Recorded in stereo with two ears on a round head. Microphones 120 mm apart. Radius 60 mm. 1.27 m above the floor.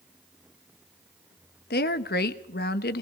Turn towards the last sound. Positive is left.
turn(degrees=85)